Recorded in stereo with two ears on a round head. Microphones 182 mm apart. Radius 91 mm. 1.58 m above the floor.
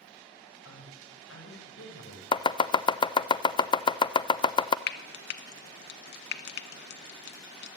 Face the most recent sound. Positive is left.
turn(degrees=60)  # may be behind; listen again after turning